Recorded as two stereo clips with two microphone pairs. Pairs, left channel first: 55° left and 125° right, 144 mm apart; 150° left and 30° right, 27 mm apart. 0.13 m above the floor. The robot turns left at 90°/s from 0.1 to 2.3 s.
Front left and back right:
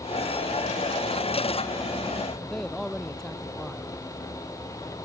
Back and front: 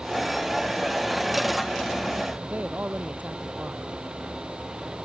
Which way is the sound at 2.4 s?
30° right.